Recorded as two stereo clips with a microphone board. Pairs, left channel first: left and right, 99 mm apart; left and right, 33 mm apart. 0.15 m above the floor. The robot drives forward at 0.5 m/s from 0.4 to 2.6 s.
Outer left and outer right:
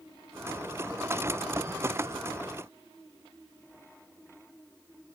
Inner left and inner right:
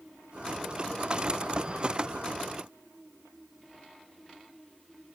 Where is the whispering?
I don't hear whispering.